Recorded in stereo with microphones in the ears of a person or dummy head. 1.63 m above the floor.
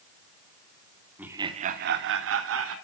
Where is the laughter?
5° right (ahead or behind), 1.0 m; by 2.8 s 75° right (ahead or behind), 1.8 m.